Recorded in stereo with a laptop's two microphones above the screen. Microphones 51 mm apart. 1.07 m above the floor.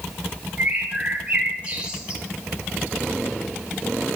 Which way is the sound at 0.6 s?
20° right (ahead or behind).